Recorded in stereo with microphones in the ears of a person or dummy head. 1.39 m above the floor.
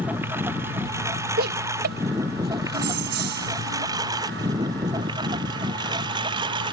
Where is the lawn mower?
10° right (ahead or behind); by 6.7 s 25° right (ahead or behind).